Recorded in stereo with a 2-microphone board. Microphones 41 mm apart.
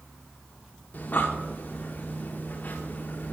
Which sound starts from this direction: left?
Breathing, at 0.9 s.